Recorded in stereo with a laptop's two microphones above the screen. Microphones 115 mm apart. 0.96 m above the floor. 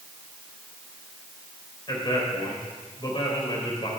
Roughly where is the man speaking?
Left.